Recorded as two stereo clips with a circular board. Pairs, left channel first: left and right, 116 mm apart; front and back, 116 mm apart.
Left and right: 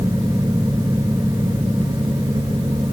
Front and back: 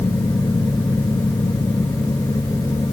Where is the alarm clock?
No alarm clock in this recording.